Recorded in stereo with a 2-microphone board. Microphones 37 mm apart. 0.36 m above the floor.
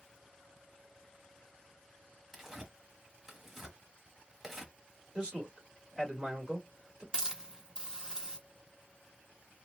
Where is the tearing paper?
15° right (ahead or behind), 1.0 m.